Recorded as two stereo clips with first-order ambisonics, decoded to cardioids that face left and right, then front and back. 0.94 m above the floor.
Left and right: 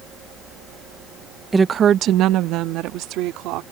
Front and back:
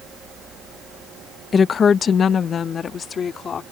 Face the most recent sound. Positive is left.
turn(degrees=-65)